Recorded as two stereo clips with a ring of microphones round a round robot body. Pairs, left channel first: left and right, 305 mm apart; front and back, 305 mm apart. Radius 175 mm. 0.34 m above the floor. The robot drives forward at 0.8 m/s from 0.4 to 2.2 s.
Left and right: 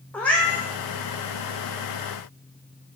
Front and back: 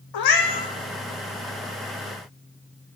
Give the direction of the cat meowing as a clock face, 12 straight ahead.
12 o'clock.